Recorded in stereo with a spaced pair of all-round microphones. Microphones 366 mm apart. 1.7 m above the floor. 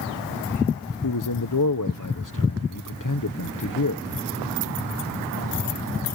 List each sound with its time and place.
1.0 s a man speaking: 60° left (ahead or behind)